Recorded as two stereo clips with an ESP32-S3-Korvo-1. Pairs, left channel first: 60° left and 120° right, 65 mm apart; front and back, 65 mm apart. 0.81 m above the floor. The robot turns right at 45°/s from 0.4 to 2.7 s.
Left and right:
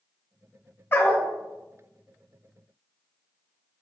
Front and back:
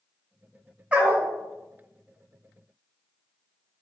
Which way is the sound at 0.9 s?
110° left.